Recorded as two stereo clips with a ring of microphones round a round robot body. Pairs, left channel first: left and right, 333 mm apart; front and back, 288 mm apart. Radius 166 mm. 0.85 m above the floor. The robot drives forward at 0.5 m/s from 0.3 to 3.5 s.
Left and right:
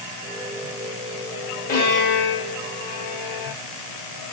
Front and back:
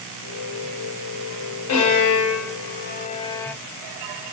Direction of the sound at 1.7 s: 25° left.